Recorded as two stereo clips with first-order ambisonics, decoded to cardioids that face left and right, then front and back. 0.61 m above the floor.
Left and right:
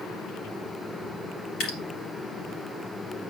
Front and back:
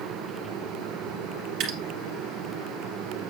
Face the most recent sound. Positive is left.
turn(degrees=135)